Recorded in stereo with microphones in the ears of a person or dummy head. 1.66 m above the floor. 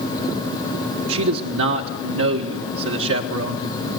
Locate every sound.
1.1 s a man speaking: 70° right (ahead or behind), 1.6 m